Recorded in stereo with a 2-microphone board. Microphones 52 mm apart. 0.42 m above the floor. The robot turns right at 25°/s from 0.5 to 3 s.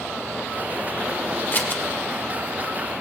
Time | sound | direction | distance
1.5 | scissors | 40° left (ahead or behind) | 1.6 m